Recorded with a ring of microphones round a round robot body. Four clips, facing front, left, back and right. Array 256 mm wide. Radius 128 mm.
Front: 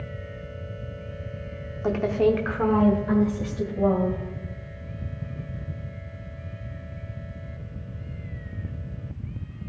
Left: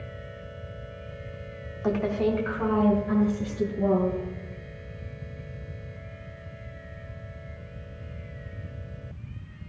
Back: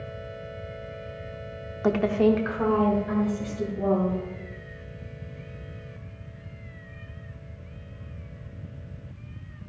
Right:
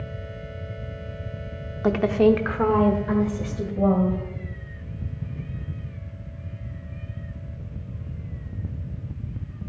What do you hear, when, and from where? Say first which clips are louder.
1.8 s a woman speaking: right 7 dB, even; 120° right, 0.8 m; by 4.2 s 60° right, 2 m